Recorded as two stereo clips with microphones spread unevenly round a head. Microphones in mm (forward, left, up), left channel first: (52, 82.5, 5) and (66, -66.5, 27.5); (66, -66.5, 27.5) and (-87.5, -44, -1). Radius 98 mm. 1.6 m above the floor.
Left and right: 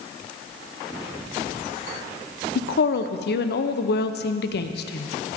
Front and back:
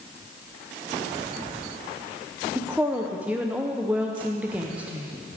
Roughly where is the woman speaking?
Left.